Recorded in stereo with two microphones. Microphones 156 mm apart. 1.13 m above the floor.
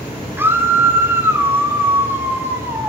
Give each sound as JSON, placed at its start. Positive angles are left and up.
{"t": 0.4, "sound": "a scream", "side_deg": -15, "distance_m": 3.0}